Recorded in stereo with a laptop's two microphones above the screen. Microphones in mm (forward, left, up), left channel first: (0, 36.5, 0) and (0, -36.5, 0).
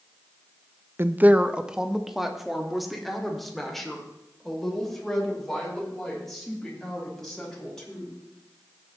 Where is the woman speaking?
30° right (ahead or behind), 0.5 m; by 8.1 s 5° left (ahead or behind), 6.5 m.